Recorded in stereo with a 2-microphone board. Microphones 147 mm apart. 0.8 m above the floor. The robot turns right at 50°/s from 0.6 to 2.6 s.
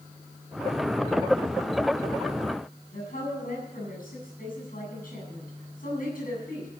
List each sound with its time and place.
2.9 s a woman speaking: 70° left (ahead or behind), 8.5 m